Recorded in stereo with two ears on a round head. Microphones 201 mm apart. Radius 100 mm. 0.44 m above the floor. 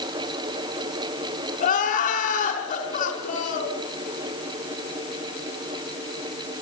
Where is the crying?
40° left (ahead or behind), 5 m.